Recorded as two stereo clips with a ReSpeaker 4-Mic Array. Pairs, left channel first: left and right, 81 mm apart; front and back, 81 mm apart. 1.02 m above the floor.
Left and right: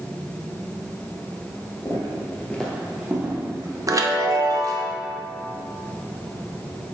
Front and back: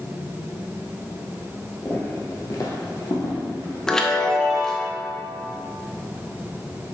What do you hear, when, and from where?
1.9 s footsteps: 60° left, 1.7 m; by 3.8 s 35° right, 2 m
3.9 s a chime: 75° right, 0.7 m